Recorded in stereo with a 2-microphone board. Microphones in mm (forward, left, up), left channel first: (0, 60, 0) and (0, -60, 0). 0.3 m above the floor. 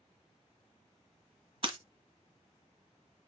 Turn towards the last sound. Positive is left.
turn(degrees=-40)  # may be behind; listen again after turning